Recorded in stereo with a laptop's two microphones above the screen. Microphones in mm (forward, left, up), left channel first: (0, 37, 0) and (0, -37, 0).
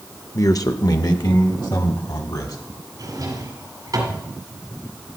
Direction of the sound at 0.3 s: 45° left (ahead or behind).